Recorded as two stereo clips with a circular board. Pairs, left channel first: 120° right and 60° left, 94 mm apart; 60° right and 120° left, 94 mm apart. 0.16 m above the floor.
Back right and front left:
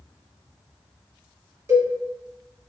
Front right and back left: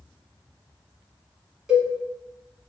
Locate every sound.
1.7 s a cowbell: 40° left, 1.1 m